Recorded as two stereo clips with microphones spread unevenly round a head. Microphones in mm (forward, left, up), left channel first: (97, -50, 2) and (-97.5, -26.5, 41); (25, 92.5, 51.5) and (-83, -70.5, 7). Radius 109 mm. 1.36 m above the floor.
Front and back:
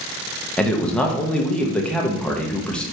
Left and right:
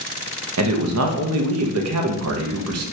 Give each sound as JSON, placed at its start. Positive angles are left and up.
{"t": 0.6, "sound": "a man speaking", "azimuth_deg": -95, "distance_m": 0.7}